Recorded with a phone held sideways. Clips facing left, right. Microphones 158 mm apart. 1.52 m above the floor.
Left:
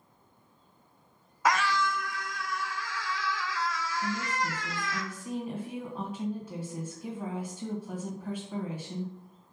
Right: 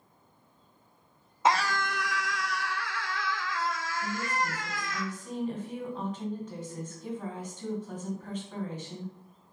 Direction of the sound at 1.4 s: 25° right (ahead or behind).